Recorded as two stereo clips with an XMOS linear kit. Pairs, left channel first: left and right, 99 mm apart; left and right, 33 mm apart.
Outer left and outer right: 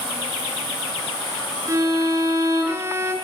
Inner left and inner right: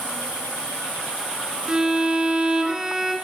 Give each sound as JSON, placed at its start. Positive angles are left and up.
{"t": 1.7, "sound": "a violin", "side_deg": -30, "distance_m": 3.0}